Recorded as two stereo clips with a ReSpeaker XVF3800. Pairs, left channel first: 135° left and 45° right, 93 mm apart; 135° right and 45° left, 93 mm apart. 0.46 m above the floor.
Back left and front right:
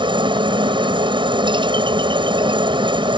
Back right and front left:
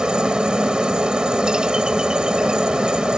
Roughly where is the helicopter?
Ahead right.